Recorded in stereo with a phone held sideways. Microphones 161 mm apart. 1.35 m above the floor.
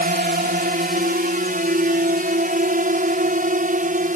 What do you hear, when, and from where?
0.0 s a drone: 65° right (ahead or behind); by 4.2 s 55° right (ahead or behind)